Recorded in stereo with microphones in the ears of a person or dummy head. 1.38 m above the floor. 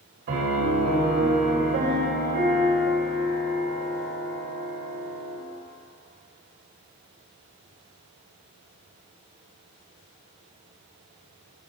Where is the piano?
55° right (ahead or behind), 3 m.